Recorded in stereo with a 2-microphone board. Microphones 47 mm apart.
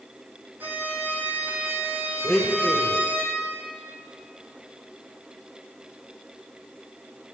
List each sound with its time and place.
0.6 s a violin: 40° right (ahead or behind), 1.1 m
2.2 s a blender: 15° right (ahead or behind), 0.9 m